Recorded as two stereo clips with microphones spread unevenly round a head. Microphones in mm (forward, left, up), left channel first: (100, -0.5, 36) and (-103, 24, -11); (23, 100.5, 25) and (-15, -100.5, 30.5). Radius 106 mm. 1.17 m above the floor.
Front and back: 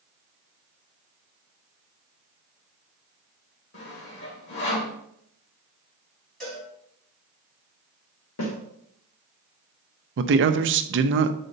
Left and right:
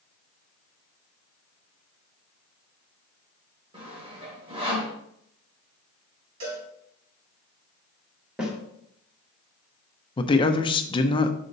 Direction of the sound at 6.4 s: 90° right.